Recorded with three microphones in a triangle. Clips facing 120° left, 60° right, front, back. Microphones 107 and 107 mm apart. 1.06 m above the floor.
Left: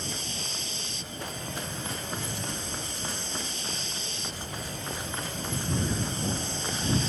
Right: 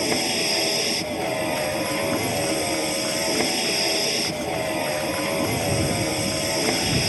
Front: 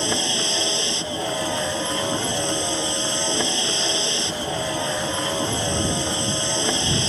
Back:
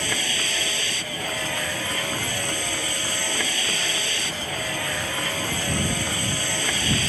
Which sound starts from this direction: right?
A vehicle, at 0.0 s.